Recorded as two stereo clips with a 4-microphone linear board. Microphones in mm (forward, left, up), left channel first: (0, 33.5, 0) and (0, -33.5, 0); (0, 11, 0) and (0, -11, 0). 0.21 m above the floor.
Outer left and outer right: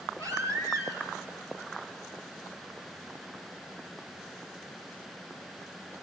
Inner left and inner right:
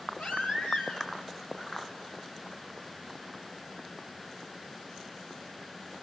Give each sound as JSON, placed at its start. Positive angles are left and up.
{"t": 0.2, "sound": "a baby crying", "side_deg": 65, "distance_m": 3.5}